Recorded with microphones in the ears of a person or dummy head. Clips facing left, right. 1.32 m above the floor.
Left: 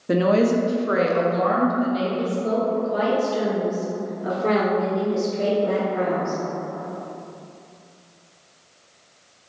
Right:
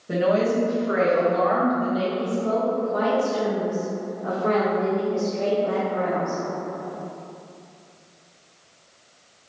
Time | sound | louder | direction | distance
0.1 | a woman speaking | left 3 dB | 65° left (ahead or behind) | 0.6 m
2.2 | a woman speaking | left 1 dB | 60° left (ahead or behind) | 1.6 m